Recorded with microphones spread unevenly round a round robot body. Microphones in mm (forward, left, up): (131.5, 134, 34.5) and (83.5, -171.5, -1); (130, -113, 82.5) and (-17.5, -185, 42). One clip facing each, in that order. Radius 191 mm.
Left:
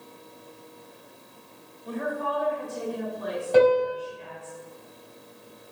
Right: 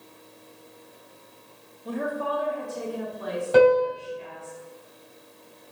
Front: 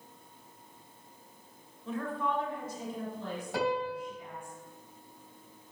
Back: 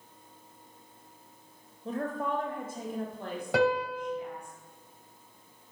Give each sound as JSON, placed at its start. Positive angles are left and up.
{"t": 1.9, "sound": "a woman speaking", "azimuth_deg": -120, "distance_m": 0.9}
{"t": 3.5, "sound": "a piano", "azimuth_deg": 175, "distance_m": 2.0}